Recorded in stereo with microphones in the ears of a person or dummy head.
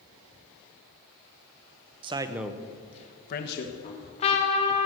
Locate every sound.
2.0 s a man speaking: 30° right (ahead or behind), 1.1 m; by 3.7 s 65° left (ahead or behind), 1.8 m
3.8 s a trumpet: 35° left (ahead or behind), 2.5 m